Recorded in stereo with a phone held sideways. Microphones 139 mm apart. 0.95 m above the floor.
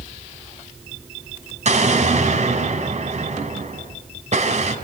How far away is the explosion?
About 4.5 m.